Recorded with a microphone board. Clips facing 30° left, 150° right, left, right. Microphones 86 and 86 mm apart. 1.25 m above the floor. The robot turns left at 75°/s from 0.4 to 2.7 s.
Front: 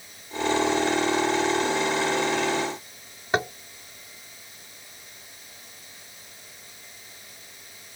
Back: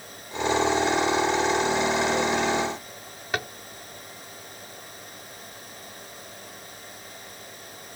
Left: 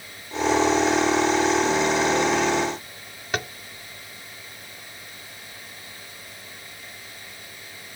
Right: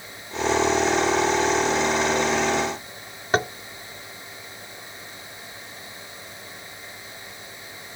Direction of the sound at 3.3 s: 35° right.